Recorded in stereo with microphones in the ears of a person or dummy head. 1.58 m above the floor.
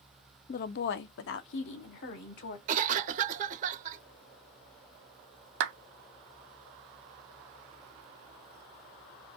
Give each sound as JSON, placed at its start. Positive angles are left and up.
{"t": 0.5, "sound": "a woman speaking", "side_deg": 45, "distance_m": 0.6}
{"t": 2.7, "sound": "a cough", "side_deg": -40, "distance_m": 0.5}
{"t": 5.6, "sound": "a clap", "side_deg": -70, "distance_m": 0.7}